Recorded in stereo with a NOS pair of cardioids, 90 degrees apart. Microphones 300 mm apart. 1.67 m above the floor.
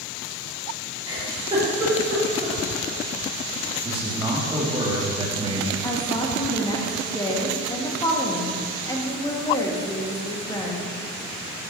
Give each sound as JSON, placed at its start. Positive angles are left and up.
{"t": 1.1, "sound": "a giggle", "azimuth_deg": -15, "distance_m": 2.5}
{"t": 3.9, "sound": "a man speaking", "azimuth_deg": -20, "distance_m": 1.8}
{"t": 5.8, "sound": "a woman speaking", "azimuth_deg": 15, "distance_m": 1.4}